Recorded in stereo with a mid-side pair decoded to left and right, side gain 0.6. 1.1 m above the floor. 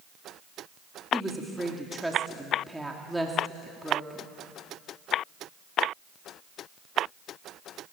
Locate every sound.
1.1 s a woman speaking: 5° right, 2.5 m